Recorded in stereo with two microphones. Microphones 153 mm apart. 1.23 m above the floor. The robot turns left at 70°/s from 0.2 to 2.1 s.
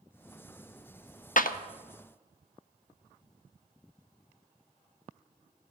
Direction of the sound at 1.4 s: 60° left (ahead or behind).